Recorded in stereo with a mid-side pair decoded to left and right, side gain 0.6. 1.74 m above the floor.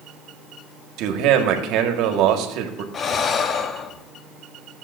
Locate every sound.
1.0 s a man speaking: 70° right, 1.7 m
2.9 s breathing: 40° left, 0.8 m